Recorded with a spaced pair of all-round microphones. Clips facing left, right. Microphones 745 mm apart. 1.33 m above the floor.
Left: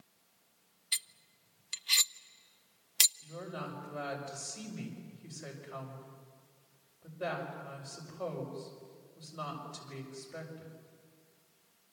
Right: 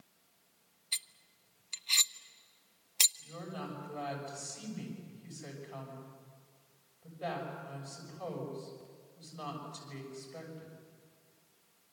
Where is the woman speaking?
85° left, 6 m.